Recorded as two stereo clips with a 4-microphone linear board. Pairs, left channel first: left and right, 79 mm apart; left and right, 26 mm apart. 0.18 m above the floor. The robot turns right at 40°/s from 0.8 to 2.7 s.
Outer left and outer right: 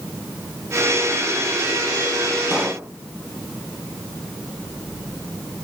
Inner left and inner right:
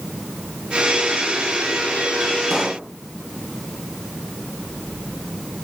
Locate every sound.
2.5 s a pop: 10° right (ahead or behind), 1.5 m; by 2.9 s 15° right (ahead or behind), 1.5 m